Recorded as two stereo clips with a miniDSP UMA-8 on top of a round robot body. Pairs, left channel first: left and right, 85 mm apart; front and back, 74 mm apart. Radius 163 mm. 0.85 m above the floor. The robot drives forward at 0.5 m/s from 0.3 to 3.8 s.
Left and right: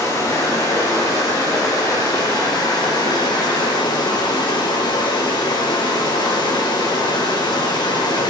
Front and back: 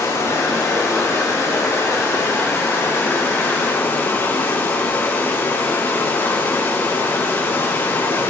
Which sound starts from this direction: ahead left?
Running water, at 0.0 s.